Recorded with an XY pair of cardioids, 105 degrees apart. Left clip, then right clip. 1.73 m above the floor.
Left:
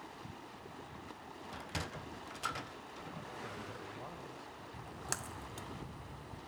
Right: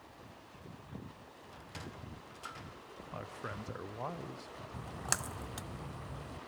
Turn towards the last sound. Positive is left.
turn(degrees=-40)